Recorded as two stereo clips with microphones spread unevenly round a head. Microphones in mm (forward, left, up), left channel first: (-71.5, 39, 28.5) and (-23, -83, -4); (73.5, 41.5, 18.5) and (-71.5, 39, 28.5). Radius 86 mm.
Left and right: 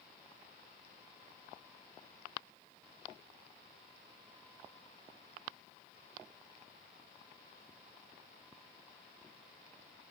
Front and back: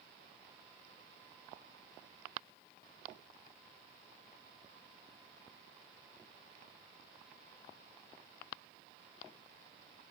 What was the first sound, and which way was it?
Only background noise.